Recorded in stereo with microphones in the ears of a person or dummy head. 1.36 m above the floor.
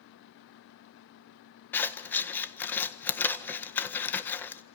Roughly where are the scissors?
Centre.